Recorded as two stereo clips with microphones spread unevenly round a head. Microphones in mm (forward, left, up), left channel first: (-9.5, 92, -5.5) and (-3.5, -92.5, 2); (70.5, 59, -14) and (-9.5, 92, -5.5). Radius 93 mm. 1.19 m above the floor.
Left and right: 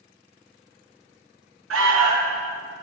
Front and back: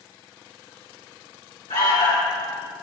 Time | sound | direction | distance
1.7 | an alarm | 75° right | 1.9 m